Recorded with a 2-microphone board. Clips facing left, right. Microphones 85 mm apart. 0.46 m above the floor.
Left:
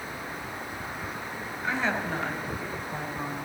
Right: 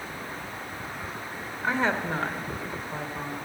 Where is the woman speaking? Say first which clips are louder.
Right 3 dB; 45° right (ahead or behind), 1.9 m; by 3.3 s 20° right (ahead or behind), 2 m.